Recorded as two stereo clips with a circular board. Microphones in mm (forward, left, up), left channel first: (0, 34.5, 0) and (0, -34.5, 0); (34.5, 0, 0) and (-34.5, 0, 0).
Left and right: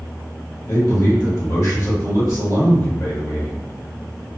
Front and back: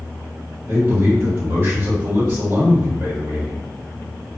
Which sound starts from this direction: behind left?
A man speaking, at 0.7 s.